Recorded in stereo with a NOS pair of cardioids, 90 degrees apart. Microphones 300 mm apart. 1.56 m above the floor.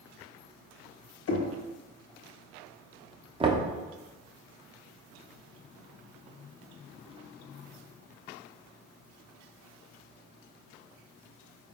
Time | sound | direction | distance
1.3 | knocking | 50° left | 0.7 m
3.4 | knocking | 20° right | 0.6 m